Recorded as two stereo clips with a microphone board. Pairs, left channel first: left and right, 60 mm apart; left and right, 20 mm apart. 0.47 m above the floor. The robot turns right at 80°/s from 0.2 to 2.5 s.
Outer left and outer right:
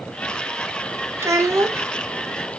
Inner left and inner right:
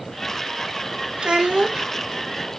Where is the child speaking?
120° right, 0.6 m; by 1.9 s 65° right, 0.6 m.